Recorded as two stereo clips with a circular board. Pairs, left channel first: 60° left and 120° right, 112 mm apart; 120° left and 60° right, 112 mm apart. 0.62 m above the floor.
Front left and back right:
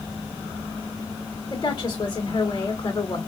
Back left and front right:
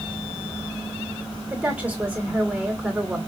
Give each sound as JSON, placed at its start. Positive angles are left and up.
{"t": 1.5, "sound": "a woman speaking", "azimuth_deg": 15, "distance_m": 2.5}